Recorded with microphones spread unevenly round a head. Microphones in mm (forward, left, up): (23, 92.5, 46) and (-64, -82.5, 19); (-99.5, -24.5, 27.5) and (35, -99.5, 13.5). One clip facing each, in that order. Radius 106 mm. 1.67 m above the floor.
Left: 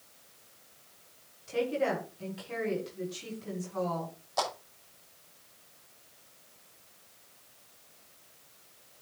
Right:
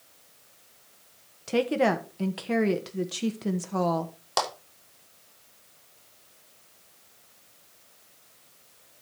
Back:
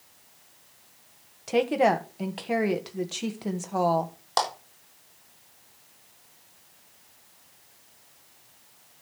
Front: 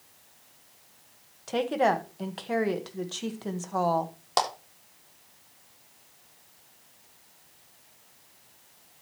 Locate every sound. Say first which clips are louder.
1.5 s a woman speaking: right 6 dB, back 3 dB; 135° right, 1.6 m
4.4 s a clap: right 3 dB, even; 100° right, 5 m